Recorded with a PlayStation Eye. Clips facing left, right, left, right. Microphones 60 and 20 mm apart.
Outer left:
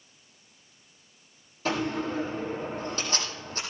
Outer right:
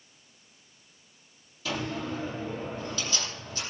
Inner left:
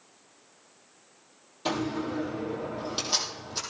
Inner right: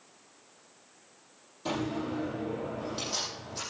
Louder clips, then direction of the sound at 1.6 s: Outer left 4 dB, inner left 3 dB; 40° left (ahead or behind).